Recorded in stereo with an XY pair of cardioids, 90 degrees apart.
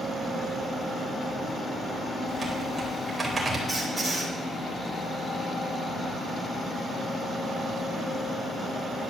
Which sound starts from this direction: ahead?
A squeak, at 3.7 s.